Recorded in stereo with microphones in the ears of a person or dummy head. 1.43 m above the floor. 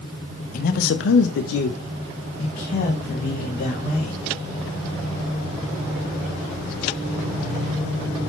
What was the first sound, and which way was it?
A man speaking, 50° left (ahead or behind).